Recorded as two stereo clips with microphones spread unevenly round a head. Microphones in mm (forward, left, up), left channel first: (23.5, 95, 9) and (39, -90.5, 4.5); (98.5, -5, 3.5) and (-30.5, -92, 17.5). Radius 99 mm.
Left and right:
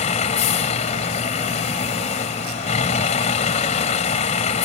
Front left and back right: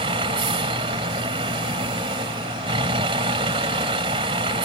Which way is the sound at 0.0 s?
150° left.